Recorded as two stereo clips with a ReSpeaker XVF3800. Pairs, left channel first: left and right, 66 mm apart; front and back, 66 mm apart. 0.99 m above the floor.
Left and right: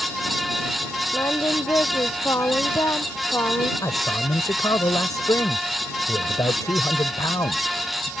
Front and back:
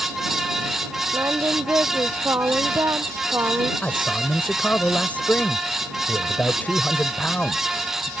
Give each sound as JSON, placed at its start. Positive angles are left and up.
{"t": 1.1, "sound": "singing", "azimuth_deg": 135}
{"t": 3.8, "sound": "a man speaking", "azimuth_deg": 70}